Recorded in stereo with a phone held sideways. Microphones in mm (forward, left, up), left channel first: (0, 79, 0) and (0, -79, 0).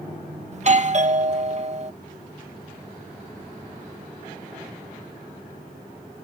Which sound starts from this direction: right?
A doorbell, at 0.5 s.